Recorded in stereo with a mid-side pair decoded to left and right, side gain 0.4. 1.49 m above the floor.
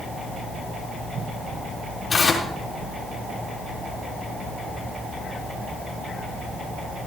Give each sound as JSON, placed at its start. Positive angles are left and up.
{"t": 2.1, "sound": "tearing paper", "azimuth_deg": 35, "distance_m": 3.0}